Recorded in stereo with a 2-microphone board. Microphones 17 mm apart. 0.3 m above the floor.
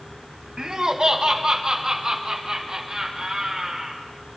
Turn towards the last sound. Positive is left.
turn(degrees=-40)  # may be behind; listen again after turning